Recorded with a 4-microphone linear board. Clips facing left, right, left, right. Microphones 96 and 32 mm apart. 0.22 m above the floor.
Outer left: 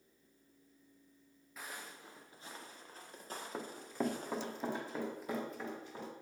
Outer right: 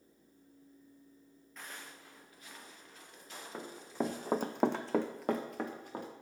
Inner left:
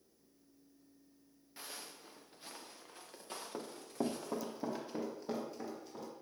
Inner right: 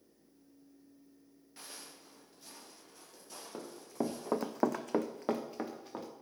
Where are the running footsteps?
5° left (ahead or behind), 1.2 m; by 6.1 s 50° right (ahead or behind), 2 m.